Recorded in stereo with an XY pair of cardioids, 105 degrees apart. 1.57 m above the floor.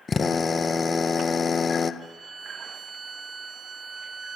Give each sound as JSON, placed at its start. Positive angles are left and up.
{"t": 0.1, "sound": "a drill", "azimuth_deg": 40, "distance_m": 1.7}
{"t": 2.0, "sound": "a violin", "azimuth_deg": -40, "distance_m": 3.5}